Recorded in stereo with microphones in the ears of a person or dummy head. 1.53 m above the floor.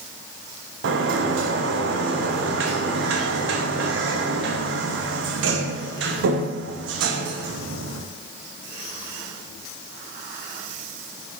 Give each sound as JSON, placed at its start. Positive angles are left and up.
{"t": 0.8, "sound": "a sliding door", "side_deg": -75, "distance_m": 0.5}